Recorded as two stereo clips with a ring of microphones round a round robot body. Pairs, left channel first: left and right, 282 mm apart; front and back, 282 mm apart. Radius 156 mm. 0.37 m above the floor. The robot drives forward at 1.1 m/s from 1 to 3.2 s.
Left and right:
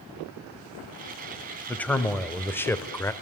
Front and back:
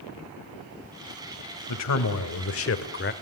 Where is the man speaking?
5° left, 3 m; by 3.1 s 15° left, 1.7 m.